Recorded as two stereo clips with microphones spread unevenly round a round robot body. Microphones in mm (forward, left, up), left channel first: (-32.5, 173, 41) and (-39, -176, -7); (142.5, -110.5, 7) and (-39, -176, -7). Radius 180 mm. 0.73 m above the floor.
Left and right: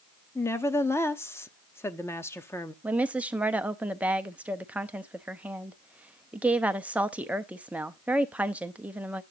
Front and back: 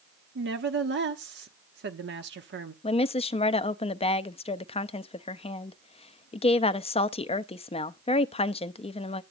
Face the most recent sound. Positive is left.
turn(degrees=-20)